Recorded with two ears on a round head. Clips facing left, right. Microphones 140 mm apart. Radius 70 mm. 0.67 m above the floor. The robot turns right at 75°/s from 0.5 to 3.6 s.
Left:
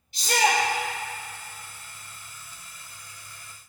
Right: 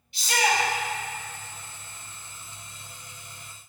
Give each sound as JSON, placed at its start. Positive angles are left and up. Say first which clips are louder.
{"t": 0.1, "sound": "a shout", "louder": "left 2 dB", "side_deg": 35, "distance_m": 1.9}